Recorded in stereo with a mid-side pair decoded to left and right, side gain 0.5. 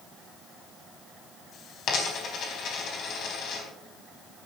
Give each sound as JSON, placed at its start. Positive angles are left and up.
{"t": 1.9, "sound": "a dropped coin", "azimuth_deg": 55, "distance_m": 4.0}